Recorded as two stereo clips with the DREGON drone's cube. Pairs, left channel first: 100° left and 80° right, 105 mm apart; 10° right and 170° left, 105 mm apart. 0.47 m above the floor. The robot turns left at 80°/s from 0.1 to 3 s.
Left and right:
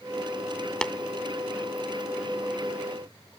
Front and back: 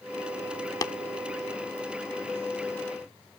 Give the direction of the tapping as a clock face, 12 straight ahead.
11 o'clock.